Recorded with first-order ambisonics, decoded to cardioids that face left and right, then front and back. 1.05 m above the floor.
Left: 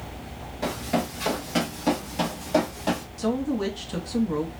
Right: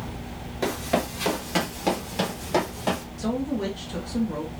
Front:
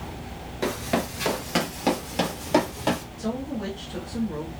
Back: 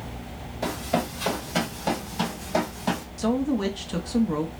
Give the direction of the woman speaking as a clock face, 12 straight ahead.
7 o'clock.